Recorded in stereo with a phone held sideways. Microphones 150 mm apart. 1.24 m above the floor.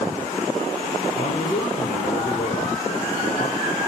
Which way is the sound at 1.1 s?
75° left (ahead or behind).